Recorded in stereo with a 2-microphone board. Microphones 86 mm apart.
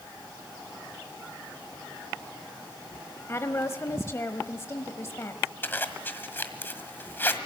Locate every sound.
3.3 s a woman speaking: 30° left (ahead or behind), 1.0 m
5.6 s a zipper: 25° left (ahead or behind), 1.6 m